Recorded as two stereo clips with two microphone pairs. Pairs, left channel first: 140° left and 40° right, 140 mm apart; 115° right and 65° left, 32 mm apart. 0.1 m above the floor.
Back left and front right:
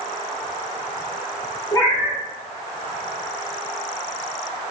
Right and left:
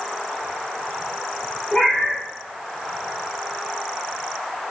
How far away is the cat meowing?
About 1.4 m.